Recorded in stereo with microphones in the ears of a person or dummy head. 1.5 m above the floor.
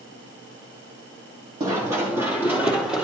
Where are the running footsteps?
20° right (ahead or behind), 3.5 m; by 3.0 s centre (ahead or behind), 4.5 m.